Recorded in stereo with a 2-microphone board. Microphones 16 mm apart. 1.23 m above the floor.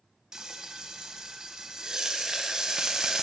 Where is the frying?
45° right (ahead or behind), 0.7 m.